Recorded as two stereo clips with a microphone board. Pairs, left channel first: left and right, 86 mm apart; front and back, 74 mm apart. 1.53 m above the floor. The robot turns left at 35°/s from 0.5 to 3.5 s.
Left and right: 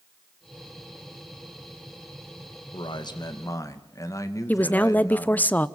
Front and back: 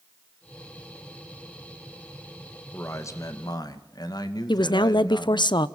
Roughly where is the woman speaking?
Ahead.